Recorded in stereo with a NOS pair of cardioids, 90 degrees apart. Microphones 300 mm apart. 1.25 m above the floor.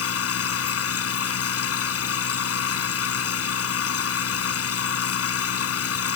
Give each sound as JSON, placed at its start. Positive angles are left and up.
{"t": 0.0, "sound": "a machine running", "azimuth_deg": 50}